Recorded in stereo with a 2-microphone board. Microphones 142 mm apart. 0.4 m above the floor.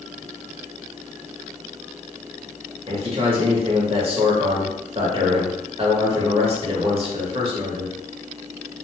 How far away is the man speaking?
About 1.0 m.